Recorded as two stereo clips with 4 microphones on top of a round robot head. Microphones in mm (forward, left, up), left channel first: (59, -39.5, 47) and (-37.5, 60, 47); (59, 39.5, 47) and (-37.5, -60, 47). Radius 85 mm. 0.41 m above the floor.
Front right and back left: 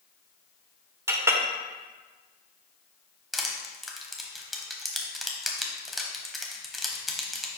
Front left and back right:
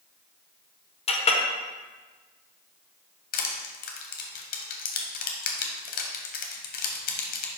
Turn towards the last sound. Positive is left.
turn(degrees=45)